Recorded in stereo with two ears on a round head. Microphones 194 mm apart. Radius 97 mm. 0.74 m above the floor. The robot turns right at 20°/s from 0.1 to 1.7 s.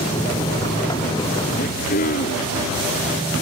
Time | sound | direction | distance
1.6 | throat clearing | 35° left (ahead or behind) | ?